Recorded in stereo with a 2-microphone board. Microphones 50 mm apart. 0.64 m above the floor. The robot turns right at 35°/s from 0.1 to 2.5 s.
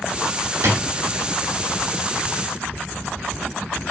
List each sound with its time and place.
0.6 s a drawer: 65° right (ahead or behind), 0.8 m; by 0.8 s 75° right (ahead or behind), 0.8 m